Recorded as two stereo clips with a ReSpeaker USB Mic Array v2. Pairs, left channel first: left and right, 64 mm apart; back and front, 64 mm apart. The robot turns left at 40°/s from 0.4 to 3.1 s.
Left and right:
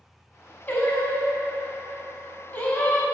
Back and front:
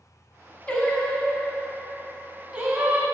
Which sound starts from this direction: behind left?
Singing, at 0.7 s.